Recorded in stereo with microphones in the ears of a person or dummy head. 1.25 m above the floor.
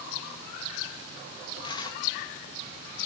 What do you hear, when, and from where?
1.6 s tearing paper: 30° left (ahead or behind), 1.3 m